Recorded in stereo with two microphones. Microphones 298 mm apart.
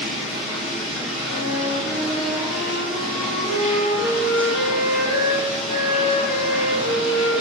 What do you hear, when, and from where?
0.0 s running water: centre (ahead or behind), 1.0 m
1.2 s a flute: 60° left (ahead or behind), 0.8 m